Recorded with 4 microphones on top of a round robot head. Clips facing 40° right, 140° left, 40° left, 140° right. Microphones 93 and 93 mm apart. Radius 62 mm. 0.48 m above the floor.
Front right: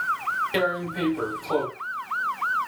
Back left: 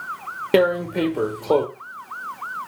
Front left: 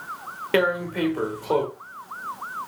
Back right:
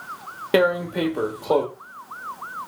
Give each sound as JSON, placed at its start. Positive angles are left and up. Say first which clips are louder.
{"t": 0.5, "sound": "tearing paper", "louder": "back left 12 dB, back right 3 dB", "azimuth_deg": 150, "distance_m": 1.1}